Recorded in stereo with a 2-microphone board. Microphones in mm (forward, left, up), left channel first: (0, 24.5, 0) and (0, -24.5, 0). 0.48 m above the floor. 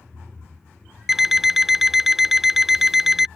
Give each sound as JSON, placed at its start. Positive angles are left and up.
{"t": 1.1, "sound": "an alarm clock", "side_deg": -5}